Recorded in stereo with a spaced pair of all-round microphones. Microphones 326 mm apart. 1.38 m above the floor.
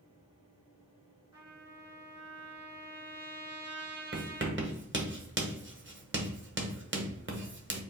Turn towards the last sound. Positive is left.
turn(degrees=-35)  # may be behind; listen again after turning